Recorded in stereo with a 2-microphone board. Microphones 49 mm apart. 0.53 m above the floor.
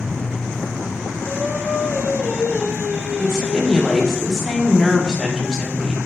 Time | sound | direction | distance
1.2 | singing | 45° right (ahead or behind) | 1.5 m
3.2 | a woman speaking | 10° left (ahead or behind) | 0.9 m